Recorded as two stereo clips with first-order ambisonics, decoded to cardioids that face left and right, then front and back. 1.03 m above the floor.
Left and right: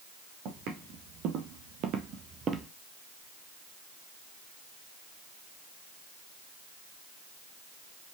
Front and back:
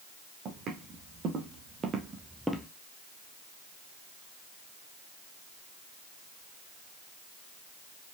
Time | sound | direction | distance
0.5 | footsteps | 125° right | 3 m